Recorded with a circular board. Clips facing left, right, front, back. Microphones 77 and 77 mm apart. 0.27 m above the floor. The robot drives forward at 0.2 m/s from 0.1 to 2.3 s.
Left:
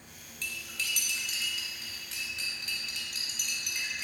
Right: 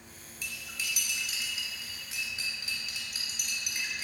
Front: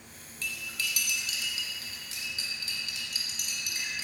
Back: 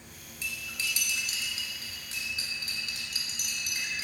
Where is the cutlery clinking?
145° right, 0.5 m; by 4.0 s 170° right, 0.7 m.